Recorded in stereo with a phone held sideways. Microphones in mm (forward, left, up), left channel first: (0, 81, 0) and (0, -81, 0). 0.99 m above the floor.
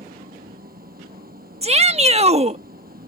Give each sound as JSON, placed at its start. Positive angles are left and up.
{"t": 0.0, "sound": "an engine running", "side_deg": -60}
{"t": 1.6, "sound": "a shout", "side_deg": -40}